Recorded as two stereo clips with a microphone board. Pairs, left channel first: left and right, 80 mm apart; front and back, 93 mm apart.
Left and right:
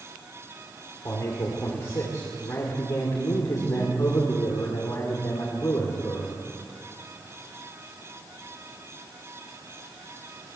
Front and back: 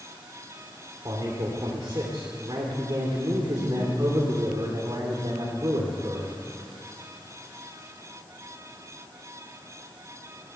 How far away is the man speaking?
About 3 m.